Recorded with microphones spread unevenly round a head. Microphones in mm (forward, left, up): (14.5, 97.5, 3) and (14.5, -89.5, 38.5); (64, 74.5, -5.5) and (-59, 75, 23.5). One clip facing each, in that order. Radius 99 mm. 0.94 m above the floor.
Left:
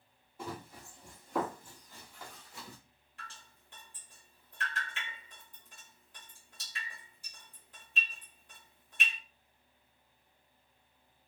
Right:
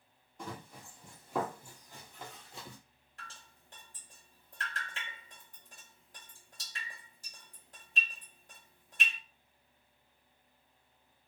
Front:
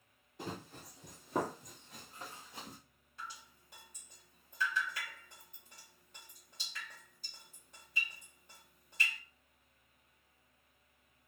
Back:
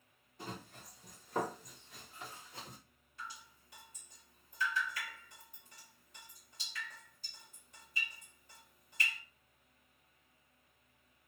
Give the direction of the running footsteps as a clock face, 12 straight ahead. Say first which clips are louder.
Left 2 dB, front 3 dB; 12 o'clock.